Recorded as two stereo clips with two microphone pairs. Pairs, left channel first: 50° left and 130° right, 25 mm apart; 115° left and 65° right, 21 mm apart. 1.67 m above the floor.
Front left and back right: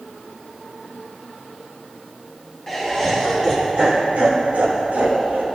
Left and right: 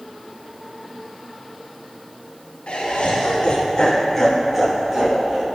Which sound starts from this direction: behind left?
Laughter, at 2.7 s.